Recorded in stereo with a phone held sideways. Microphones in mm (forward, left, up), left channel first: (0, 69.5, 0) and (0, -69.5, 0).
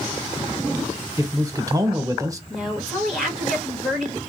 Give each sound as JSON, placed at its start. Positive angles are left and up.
{"t": 1.2, "sound": "a man speaking", "side_deg": -25, "distance_m": 1.0}
{"t": 2.5, "sound": "a woman speaking", "side_deg": 0, "distance_m": 1.5}